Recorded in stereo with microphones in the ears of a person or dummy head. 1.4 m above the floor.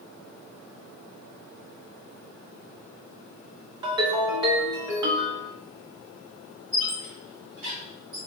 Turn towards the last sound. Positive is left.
turn(degrees=-40)  # may be behind; listen again after turning